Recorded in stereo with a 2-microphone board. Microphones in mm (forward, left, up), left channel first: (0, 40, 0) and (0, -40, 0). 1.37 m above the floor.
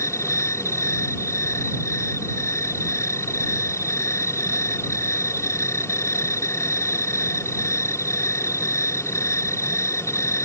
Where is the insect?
35° left (ahead or behind).